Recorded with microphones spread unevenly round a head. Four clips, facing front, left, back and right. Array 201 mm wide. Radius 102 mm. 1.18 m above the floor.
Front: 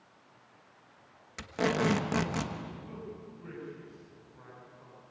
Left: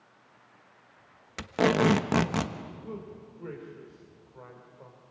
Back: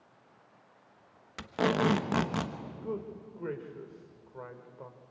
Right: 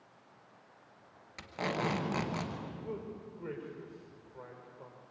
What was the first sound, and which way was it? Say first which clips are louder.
Tape being pulled: left 11 dB, back 1 dB; 100° left.